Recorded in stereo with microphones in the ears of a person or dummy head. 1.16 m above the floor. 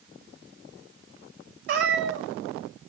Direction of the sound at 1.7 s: 60° right (ahead or behind).